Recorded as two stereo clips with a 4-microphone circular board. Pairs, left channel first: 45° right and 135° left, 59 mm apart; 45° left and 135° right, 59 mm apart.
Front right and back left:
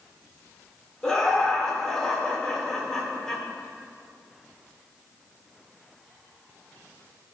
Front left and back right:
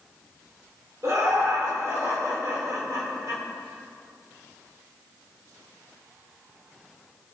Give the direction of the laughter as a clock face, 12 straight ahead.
4 o'clock.